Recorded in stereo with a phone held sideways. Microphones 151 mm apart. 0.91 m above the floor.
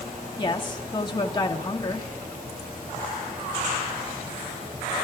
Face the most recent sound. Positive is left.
turn(degrees=30)  # may be behind; listen again after turning